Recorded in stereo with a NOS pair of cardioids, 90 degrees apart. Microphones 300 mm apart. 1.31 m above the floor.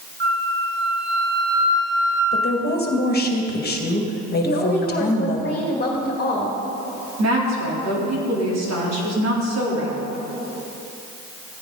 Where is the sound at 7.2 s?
60° right, 3.5 m.